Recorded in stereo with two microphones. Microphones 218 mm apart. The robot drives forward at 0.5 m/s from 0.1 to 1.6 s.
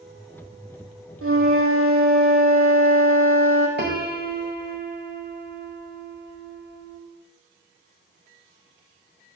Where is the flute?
85° right, 2.5 m.